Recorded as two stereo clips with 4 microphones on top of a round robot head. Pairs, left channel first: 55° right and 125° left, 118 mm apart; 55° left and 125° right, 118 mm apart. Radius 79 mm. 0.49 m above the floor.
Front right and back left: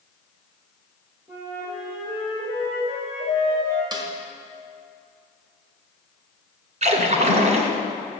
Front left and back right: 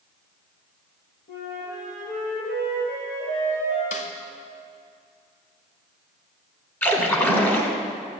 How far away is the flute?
About 5.5 m.